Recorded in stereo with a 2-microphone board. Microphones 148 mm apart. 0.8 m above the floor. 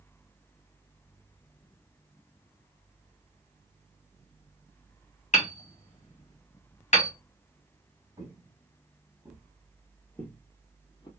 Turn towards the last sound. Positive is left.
turn(degrees=30)  # may be behind; listen again after turning